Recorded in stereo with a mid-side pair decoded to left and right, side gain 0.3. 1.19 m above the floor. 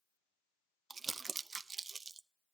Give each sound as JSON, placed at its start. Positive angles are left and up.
{"t": 0.9, "sound": "crumpling", "azimuth_deg": -50, "distance_m": 0.7}